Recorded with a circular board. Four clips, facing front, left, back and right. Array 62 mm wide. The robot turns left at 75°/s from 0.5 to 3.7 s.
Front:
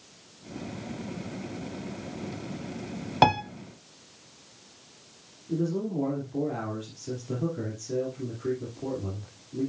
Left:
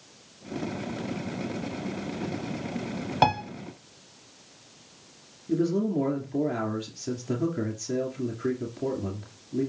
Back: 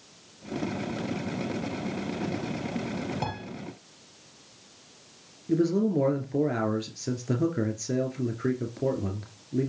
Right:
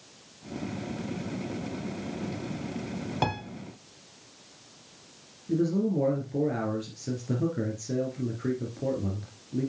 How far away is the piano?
About 0.9 m.